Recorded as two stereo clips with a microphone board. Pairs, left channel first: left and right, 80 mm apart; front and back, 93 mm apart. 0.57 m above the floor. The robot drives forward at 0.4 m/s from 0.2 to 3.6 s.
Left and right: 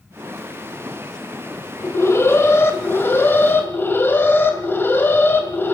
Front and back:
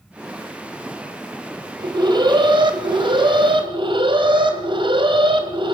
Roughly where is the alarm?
Behind left.